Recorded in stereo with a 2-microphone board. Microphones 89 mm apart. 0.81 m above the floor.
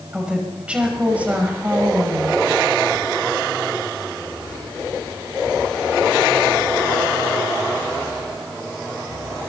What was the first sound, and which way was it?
A woman speaking, 10° right (ahead or behind).